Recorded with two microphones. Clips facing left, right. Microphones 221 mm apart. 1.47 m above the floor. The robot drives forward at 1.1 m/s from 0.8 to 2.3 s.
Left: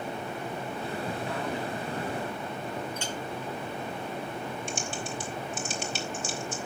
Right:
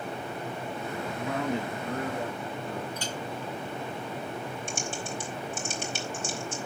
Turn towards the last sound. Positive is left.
turn(degrees=-50)  # may be behind; listen again after turning